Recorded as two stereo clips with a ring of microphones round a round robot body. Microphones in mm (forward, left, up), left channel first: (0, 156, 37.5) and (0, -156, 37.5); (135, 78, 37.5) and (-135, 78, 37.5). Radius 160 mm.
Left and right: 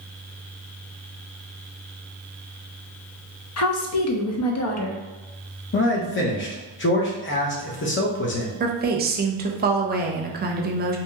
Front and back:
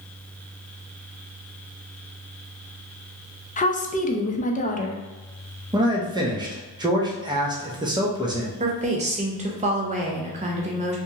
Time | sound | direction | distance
3.6 | a woman speaking | 60° left | 0.7 m
5.7 | a man speaking | 115° left | 0.9 m
8.6 | a woman speaking | 130° right | 0.7 m